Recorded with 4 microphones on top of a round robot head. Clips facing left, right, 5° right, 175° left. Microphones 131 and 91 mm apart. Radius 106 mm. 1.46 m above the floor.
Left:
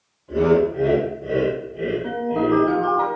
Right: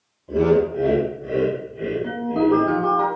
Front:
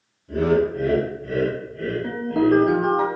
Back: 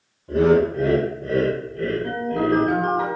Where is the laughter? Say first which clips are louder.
Even, back 3 dB; 155° right, 0.8 m; by 2.7 s 120° left, 1.2 m.